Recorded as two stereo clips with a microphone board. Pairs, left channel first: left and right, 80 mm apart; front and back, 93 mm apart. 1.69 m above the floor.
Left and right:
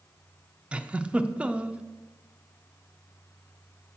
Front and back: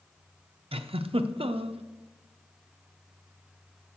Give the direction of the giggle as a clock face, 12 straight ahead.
6 o'clock.